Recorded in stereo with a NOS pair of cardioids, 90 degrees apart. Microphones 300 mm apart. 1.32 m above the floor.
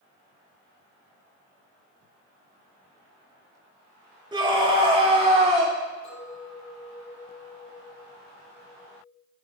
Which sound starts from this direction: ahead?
A scream, at 4.3 s.